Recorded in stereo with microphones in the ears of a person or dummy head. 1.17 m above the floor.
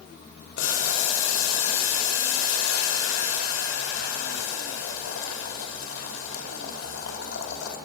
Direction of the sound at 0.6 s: 75° left (ahead or behind).